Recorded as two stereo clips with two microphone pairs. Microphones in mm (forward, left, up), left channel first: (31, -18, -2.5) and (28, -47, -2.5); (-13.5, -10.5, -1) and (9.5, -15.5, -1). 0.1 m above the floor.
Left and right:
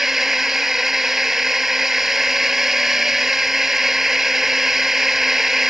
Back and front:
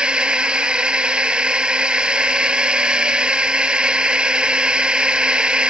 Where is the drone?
25° right.